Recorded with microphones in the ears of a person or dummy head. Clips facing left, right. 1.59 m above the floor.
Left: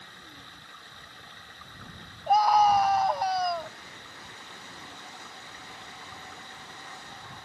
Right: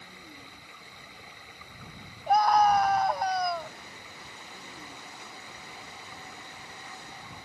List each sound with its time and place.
0.0 s running water: 5° right (ahead or behind)
2.3 s a scream: 5° left (ahead or behind)